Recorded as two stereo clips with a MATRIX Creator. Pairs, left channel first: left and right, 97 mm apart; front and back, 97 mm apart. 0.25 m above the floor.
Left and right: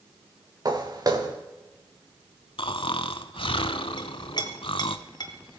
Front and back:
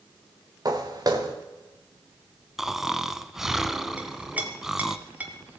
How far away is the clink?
About 1.4 m.